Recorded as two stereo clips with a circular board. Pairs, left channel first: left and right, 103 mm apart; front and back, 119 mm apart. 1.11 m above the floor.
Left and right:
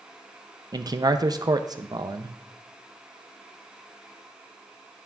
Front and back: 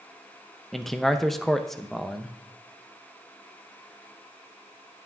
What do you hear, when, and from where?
0.7 s a man speaking: 85° right, 0.5 m